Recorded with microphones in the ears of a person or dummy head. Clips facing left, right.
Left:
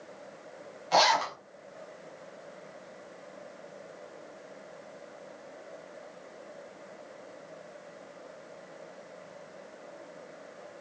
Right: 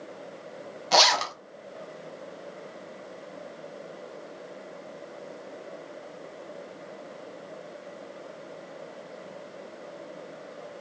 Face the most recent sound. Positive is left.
turn(degrees=-70)  # may be behind; listen again after turning